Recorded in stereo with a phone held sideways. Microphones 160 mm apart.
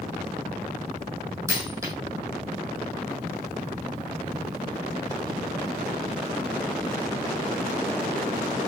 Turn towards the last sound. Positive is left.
turn(degrees=-20)  # may be behind; listen again after turning